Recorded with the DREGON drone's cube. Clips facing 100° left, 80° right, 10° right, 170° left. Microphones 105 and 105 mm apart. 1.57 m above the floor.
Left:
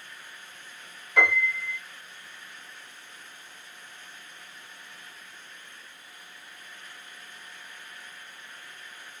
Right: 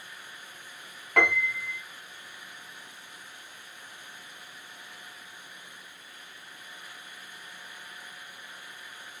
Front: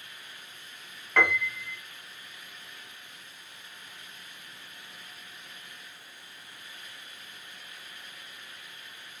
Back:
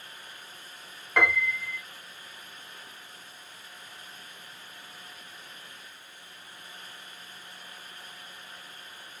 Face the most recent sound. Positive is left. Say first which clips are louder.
# left 1 dB, back 1 dB
turn(degrees=-105)